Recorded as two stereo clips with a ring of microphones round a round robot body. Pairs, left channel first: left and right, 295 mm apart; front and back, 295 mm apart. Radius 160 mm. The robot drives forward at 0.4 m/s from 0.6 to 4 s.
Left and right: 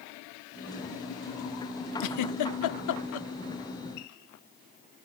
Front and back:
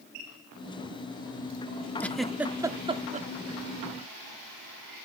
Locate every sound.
2.0 s a giggle: 85° left, 0.9 m; by 3.3 s 120° left, 1.0 m